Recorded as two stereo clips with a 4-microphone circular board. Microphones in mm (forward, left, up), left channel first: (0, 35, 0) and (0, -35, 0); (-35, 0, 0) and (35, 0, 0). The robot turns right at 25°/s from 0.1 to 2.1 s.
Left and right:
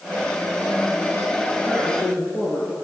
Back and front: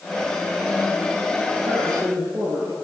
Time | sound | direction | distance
1.6 | a woman speaking | 15° left | 8.5 m